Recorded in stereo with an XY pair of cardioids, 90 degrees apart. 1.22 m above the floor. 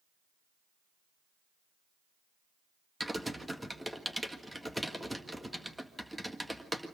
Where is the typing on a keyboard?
10° right, 1.7 m.